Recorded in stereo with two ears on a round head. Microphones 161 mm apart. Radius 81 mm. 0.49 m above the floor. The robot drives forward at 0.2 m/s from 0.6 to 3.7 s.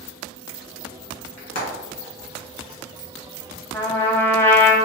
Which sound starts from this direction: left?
Frying, at 1.4 s.